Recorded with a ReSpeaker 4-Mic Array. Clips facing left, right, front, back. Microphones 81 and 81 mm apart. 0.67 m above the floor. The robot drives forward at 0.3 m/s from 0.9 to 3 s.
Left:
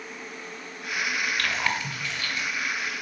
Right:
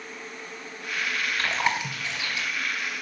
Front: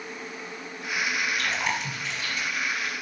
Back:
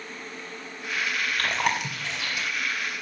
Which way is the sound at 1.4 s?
160° right.